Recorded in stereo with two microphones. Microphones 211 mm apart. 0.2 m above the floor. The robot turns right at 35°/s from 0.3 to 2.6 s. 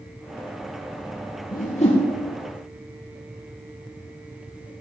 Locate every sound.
1.5 s a whoosh: 45° left (ahead or behind), 3.5 m; by 2.0 s 25° left (ahead or behind), 3.5 m